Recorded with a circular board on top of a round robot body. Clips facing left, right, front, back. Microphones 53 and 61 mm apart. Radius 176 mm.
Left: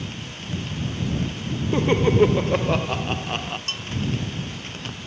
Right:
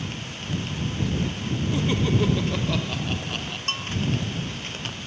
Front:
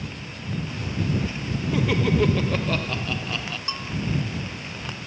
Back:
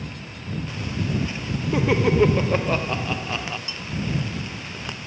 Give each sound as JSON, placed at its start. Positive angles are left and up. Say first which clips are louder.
{"t": 1.7, "sound": "laughter", "louder": "left 6 dB, back 3 dB", "azimuth_deg": 120}
{"t": 3.7, "sound": "a bell", "louder": "right 2 dB, front 2 dB", "azimuth_deg": -40}